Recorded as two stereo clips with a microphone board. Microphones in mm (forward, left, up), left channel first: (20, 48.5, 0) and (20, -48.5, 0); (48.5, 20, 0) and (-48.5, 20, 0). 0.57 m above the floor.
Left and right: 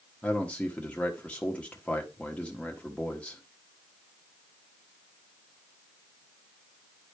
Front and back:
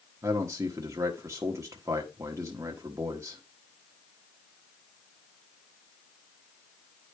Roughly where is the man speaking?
Behind left.